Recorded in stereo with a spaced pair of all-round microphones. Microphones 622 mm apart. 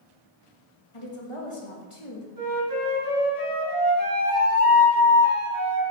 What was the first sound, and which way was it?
A woman speaking, 50° left (ahead or behind).